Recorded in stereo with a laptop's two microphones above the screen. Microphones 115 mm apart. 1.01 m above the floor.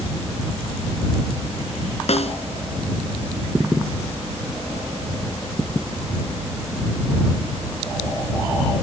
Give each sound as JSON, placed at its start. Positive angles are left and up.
{"t": 2.1, "sound": "a snare drum", "side_deg": 65}